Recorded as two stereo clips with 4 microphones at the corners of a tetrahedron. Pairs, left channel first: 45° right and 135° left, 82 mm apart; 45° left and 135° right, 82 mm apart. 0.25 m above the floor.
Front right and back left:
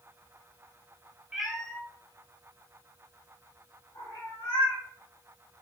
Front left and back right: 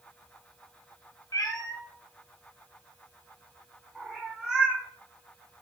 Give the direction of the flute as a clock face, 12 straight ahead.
No flute in this recording.